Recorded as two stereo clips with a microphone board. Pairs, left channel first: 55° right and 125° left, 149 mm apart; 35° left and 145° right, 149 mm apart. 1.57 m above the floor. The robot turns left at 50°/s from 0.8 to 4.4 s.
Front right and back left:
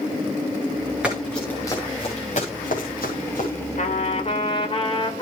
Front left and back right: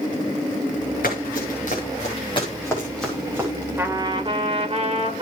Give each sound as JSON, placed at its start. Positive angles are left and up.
{"t": 1.0, "sound": "running footsteps", "azimuth_deg": 40, "distance_m": 8.5}
{"t": 3.8, "sound": "a trumpet", "azimuth_deg": -70, "distance_m": 2.5}